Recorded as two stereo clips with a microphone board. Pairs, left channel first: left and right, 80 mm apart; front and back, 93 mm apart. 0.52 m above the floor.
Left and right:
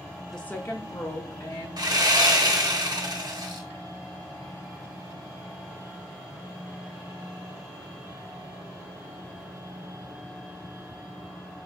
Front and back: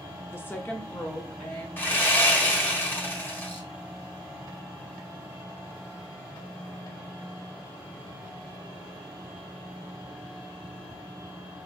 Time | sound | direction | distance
0.3 | a woman speaking | 5° left | 0.6 m
1.8 | sawing | 65° right | 1.1 m